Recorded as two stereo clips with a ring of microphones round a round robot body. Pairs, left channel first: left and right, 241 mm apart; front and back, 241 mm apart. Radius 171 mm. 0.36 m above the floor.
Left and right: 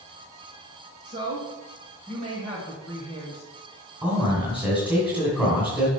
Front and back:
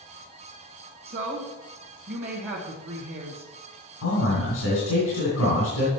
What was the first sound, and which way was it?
A woman speaking, 145° right.